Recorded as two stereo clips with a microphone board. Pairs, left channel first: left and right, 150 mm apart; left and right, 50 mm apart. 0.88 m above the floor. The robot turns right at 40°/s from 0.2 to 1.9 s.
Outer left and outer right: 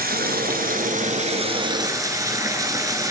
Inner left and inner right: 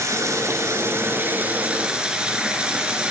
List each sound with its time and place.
0.0 s running water: 90° right, 2.5 m; by 3.1 s 20° right, 2.5 m